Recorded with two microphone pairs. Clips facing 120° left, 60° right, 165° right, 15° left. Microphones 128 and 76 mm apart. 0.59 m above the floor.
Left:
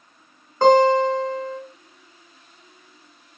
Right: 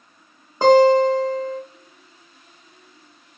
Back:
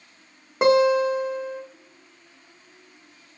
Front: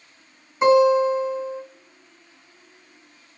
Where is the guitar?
145° right, 0.9 m.